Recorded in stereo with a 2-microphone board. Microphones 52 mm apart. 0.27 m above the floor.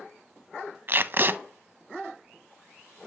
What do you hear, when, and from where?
0.9 s tape being pulled: 45° right (ahead or behind), 0.5 m